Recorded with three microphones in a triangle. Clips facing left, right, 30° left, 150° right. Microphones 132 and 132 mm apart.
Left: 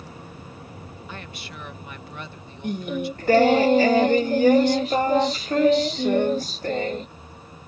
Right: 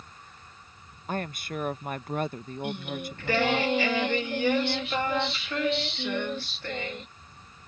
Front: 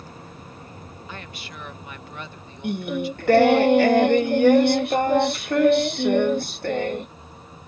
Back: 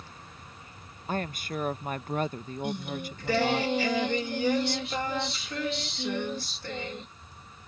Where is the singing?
45° left.